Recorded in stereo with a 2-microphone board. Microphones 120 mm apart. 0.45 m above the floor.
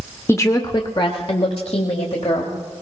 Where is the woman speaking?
20° left (ahead or behind), 0.8 m; by 2.5 s 65° left (ahead or behind), 1.8 m.